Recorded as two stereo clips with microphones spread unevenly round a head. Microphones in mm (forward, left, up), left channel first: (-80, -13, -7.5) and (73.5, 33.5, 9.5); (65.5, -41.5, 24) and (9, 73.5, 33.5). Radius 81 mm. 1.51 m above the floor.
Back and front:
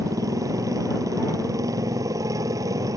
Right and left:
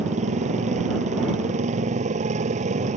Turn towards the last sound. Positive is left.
turn(degrees=85)